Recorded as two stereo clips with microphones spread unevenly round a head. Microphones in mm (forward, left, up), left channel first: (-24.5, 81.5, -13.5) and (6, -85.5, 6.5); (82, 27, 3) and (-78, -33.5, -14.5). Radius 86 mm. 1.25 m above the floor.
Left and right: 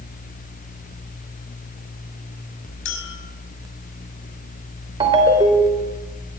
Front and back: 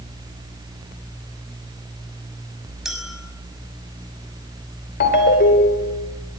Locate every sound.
2.9 s a clink: 115° left, 5.5 m
5.0 s a ringtone: 15° right, 3.5 m